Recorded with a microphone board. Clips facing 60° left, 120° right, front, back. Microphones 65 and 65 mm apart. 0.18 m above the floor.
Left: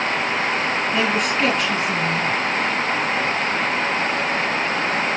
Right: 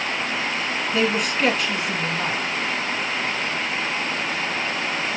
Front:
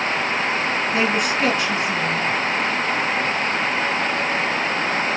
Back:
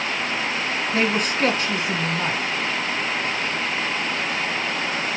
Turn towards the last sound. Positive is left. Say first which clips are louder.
# right 1 dB, even
turn(degrees=155)